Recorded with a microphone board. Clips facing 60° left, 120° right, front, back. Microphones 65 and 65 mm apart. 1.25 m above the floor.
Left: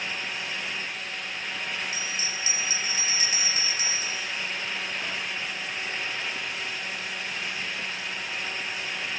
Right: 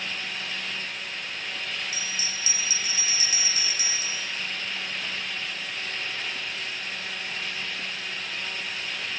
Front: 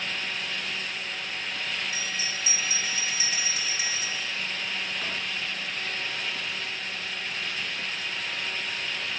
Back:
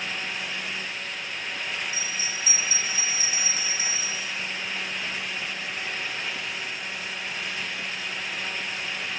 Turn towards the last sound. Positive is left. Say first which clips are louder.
# left 1 dB, even
turn(degrees=10)